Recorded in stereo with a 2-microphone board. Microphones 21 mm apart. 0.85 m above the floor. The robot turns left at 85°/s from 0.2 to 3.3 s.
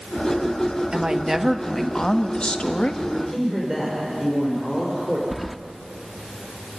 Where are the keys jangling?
Centre (ahead or behind), 0.7 m.